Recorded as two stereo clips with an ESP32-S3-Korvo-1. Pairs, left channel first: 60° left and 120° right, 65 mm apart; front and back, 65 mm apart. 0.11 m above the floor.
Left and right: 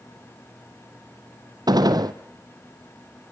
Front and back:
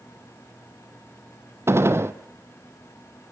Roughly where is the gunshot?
Behind right.